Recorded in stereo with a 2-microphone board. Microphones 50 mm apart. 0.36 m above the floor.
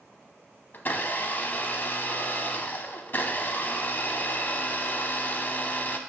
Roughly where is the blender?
Left.